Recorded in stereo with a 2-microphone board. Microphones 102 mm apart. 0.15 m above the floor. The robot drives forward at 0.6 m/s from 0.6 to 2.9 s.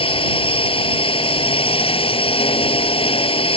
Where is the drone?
60° left (ahead or behind); by 3.6 s 65° left (ahead or behind).